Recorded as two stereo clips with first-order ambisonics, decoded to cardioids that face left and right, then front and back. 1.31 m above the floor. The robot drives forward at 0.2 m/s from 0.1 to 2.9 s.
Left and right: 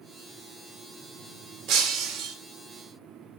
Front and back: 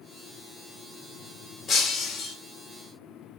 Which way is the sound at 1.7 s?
85° right.